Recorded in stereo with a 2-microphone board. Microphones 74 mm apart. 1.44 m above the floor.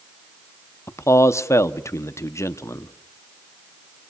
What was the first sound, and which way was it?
A man speaking, 40° left (ahead or behind).